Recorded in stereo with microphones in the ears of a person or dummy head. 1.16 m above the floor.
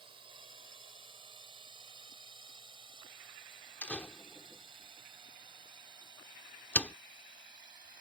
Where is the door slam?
10° left (ahead or behind).